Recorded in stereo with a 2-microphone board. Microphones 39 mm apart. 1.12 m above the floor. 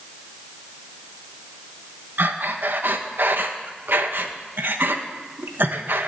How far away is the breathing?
About 1.3 m.